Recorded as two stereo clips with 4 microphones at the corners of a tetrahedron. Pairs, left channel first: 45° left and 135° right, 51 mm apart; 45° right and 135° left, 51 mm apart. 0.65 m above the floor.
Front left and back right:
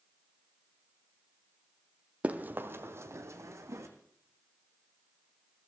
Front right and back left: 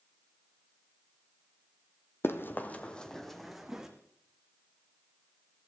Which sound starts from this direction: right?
Running footsteps, at 2.2 s.